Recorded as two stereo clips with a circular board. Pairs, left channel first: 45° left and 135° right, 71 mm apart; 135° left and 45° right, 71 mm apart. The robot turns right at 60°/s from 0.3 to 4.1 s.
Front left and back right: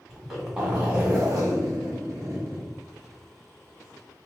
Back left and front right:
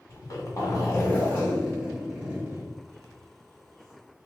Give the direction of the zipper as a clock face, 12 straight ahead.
8 o'clock.